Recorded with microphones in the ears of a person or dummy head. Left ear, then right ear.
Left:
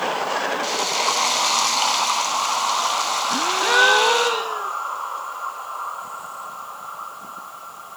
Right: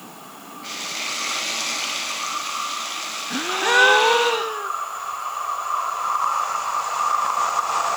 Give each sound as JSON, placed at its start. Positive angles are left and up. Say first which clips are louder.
{"t": 0.6, "sound": "frying", "louder": "left 2 dB", "side_deg": 85, "distance_m": 9.0}
{"t": 3.3, "sound": "a gasp", "louder": "right 1 dB", "side_deg": -5, "distance_m": 0.8}